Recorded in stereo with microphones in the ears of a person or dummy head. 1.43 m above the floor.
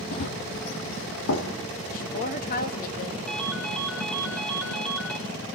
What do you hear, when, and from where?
0.1 s running footsteps: 55° left (ahead or behind), 2.5 m; by 1.5 s 65° left (ahead or behind), 3.5 m
1.9 s a woman speaking: 45° left (ahead or behind), 2.5 m
3.3 s a ringtone: 5° left (ahead or behind), 3 m